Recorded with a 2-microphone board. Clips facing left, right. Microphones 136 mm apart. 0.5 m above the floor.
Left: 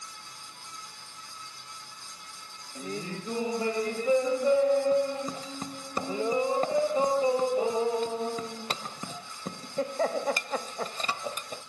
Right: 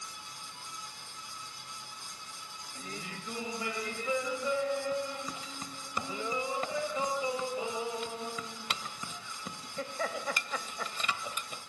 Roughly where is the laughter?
Left.